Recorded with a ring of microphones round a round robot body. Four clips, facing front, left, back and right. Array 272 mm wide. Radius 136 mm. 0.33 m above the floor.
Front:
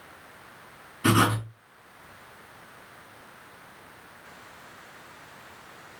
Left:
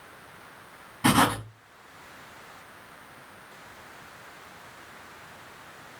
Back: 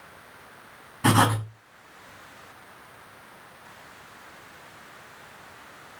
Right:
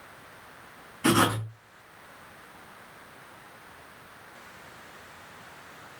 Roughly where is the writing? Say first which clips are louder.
Left 1 dB, back 2 dB; behind.